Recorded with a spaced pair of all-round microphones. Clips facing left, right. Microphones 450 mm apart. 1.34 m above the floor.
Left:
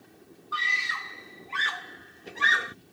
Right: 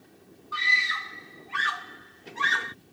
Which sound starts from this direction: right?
A scream, at 0.5 s.